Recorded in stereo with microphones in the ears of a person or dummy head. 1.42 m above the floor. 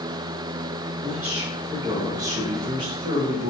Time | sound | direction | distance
1.0 | a man speaking | 5° right (ahead or behind) | 2.5 m